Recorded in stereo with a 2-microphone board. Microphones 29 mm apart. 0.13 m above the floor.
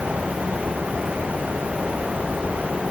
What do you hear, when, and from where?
Only background noise.